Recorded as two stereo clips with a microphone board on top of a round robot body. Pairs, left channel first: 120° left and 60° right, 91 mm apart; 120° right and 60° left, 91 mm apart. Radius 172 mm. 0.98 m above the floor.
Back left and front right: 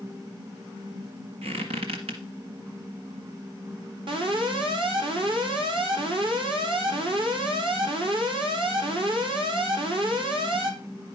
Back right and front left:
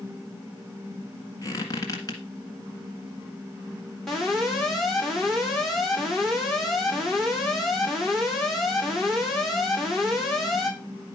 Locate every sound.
1.4 s a squeak: 65° right, 1.6 m
4.1 s an alarm: 35° right, 4 m